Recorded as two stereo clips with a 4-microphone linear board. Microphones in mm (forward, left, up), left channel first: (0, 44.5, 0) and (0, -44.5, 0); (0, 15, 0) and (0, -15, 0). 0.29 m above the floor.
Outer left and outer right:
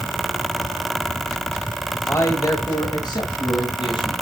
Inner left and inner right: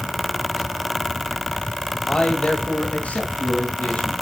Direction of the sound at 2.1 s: 30° left (ahead or behind).